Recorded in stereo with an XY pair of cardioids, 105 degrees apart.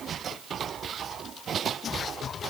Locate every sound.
Only background noise.